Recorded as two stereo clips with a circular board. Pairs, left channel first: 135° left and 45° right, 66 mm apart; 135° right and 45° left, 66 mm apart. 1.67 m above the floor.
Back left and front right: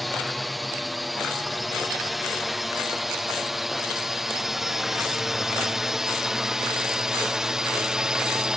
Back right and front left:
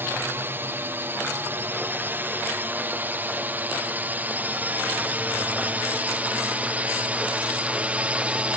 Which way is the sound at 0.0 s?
45° left.